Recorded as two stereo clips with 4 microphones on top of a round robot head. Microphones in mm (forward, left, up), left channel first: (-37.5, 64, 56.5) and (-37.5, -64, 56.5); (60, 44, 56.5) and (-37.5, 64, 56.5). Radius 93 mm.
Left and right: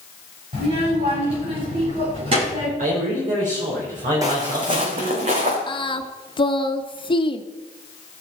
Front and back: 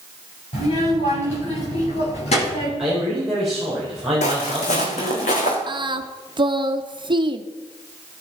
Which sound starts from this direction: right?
A man speaking, at 2.8 s.